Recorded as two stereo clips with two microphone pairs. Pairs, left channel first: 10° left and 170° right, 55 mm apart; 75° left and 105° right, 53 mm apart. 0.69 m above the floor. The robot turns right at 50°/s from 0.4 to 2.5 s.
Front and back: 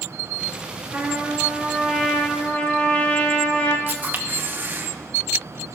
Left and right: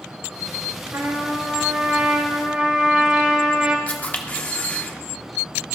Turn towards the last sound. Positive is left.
turn(degrees=140)